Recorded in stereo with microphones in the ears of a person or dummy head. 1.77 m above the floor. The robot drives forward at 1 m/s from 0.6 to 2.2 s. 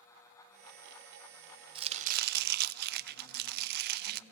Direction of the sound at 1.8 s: 30° right (ahead or behind).